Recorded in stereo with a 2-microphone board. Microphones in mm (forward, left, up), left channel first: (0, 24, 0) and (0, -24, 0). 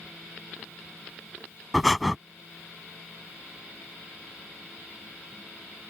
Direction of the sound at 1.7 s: Centre (ahead or behind).